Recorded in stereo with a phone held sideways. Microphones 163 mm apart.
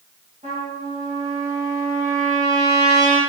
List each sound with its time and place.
0.4 s a trumpet: 50° right (ahead or behind), 1.2 m